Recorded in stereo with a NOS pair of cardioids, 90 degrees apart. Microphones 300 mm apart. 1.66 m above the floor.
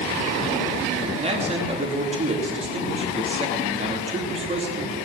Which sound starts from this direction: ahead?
A man speaking, at 1.1 s.